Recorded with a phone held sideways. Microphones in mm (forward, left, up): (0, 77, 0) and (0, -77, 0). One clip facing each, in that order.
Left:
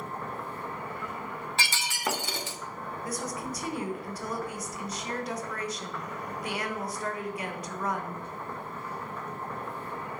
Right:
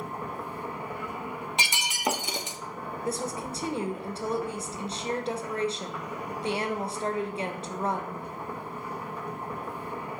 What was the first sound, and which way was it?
A machine running, 10° right (ahead or behind).